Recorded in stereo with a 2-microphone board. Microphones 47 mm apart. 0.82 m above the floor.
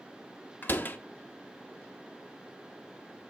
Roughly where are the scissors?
No scissors in this recording.